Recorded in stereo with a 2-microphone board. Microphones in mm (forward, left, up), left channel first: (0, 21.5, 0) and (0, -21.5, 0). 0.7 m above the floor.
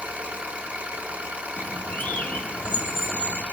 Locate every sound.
0.0 s an engine running: 35° right (ahead or behind), 1.8 m
1.6 s a bird: 45° left (ahead or behind), 1.4 m